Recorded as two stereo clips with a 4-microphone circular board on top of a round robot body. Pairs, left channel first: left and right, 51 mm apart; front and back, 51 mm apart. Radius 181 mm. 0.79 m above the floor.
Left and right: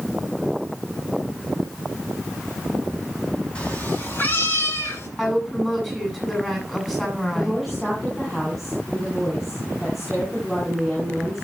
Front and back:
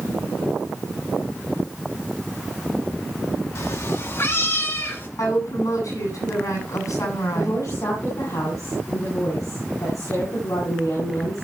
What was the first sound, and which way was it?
A cat meowing, 25° left.